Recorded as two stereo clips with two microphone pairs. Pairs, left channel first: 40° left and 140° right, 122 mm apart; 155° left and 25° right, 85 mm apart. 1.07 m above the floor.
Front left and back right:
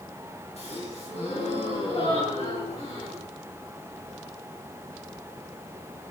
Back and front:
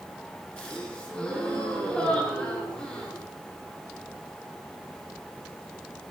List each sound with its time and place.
0.6 s a gasp: 80° left, 6.5 m